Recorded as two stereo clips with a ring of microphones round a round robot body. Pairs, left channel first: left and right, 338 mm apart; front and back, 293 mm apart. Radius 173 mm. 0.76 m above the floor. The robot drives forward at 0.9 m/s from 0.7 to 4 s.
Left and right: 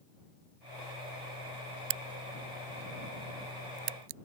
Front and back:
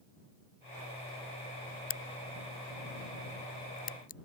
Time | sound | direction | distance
1.9 | a crack | 60° right | ?